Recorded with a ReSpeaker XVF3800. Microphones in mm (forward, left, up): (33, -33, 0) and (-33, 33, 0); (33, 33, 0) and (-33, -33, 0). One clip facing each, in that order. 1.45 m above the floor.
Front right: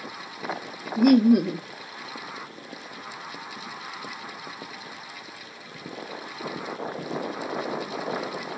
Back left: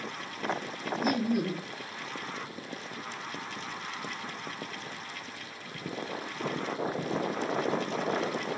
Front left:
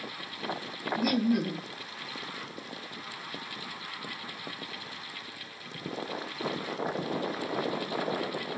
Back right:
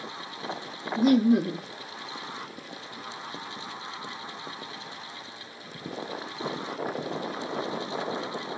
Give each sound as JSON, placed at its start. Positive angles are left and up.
{"t": 1.0, "sound": "laughter", "azimuth_deg": -70, "distance_m": 0.5}